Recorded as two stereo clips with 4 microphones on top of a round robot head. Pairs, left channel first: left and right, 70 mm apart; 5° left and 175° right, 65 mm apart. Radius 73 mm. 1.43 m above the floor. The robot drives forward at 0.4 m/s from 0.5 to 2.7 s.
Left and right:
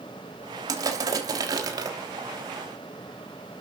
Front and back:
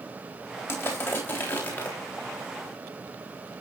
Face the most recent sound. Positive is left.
turn(degrees=-65)